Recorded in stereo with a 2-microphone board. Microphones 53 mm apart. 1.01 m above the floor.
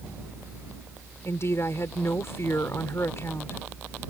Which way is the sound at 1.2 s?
55° left (ahead or behind).